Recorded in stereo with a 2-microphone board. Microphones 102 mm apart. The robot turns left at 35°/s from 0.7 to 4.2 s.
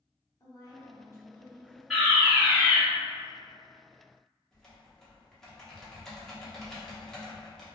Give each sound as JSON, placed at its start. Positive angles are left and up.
{"t": 0.4, "sound": "a woman speaking", "azimuth_deg": 55, "distance_m": 1.0}
{"t": 1.9, "sound": "a fire alarm", "side_deg": -5, "distance_m": 1.7}
{"t": 4.5, "sound": "typing on a keyboard", "side_deg": 5, "distance_m": 0.7}